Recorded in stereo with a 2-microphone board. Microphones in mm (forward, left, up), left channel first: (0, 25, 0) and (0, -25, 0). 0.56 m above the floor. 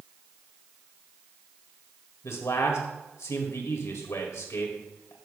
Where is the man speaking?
70° left (ahead or behind), 2 m.